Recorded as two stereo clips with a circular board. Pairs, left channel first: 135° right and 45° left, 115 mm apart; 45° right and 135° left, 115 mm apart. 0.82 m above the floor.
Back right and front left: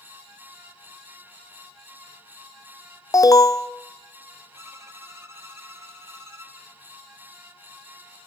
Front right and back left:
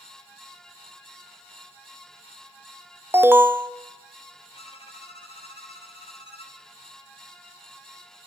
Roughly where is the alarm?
Behind.